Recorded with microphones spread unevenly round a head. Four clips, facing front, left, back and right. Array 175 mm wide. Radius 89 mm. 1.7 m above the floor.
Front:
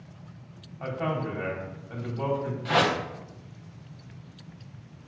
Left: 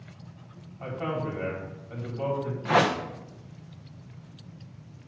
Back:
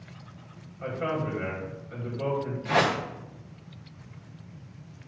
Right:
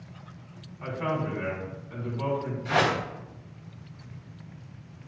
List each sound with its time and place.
0.8 s a man speaking: 30° left, 4 m
2.6 s a whoosh: 75° left, 1.1 m